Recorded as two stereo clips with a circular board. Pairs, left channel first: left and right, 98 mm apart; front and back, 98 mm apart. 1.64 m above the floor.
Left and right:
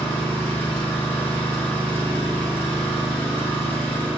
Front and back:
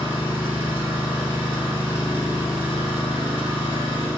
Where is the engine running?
160° left, 2 m.